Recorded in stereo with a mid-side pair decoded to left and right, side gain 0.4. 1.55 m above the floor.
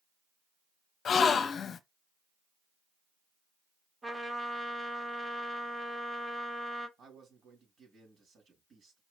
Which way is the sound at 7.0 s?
60° right.